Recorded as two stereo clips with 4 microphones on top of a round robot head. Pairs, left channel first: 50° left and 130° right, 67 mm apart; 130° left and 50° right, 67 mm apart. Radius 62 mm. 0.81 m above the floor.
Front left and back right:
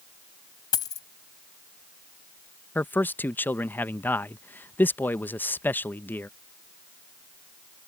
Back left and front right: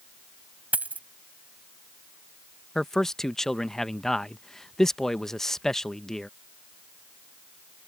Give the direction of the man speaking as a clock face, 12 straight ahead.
10 o'clock.